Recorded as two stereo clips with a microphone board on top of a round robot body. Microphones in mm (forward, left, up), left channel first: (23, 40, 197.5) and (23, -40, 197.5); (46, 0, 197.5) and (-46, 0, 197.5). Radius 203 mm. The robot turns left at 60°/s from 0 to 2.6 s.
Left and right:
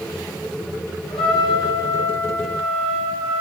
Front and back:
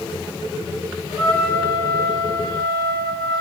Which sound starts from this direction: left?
A trumpet, at 1.1 s.